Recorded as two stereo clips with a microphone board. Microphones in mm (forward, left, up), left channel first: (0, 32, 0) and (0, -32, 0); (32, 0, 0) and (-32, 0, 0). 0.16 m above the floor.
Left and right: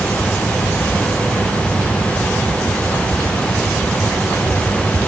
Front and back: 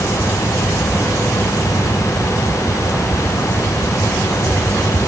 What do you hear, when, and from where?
Only background noise.